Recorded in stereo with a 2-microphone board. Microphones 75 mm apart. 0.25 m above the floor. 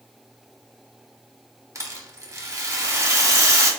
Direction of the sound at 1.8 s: 40° right (ahead or behind).